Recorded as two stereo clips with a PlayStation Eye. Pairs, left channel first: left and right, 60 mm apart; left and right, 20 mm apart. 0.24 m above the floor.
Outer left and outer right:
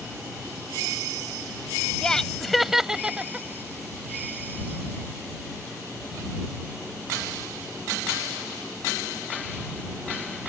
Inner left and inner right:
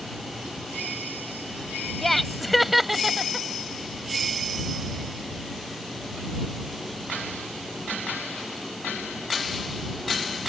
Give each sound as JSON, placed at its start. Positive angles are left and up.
{"t": 2.0, "sound": "laughter", "side_deg": 10}